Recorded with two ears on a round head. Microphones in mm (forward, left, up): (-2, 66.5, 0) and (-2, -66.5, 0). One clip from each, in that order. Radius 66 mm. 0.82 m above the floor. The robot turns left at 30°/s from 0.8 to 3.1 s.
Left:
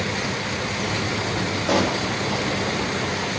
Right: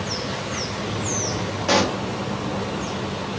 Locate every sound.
1.7 s a pop: 40° right (ahead or behind), 0.7 m; by 2.0 s 50° right (ahead or behind), 0.7 m